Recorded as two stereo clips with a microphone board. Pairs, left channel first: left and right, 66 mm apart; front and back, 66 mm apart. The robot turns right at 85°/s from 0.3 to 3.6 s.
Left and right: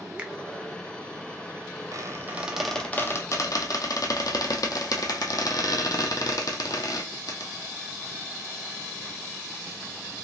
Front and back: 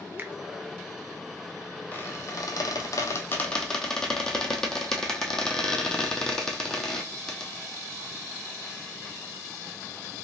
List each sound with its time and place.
0.2 s a finger snap: 150° right, 0.7 m; by 0.3 s 145° right, 0.7 m
1.9 s a squeak: 60° right, 0.9 m; by 7.5 s 80° left, 0.9 m